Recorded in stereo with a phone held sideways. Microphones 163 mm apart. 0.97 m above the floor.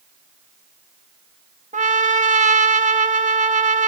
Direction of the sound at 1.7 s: 50° right (ahead or behind).